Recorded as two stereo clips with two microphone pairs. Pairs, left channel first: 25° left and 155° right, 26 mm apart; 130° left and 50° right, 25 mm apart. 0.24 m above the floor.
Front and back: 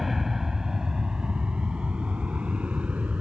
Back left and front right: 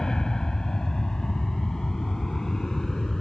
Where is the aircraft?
130° left; by 3.2 s 165° right.